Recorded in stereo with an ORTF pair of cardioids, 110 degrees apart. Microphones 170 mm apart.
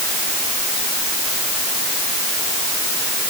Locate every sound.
Only background noise.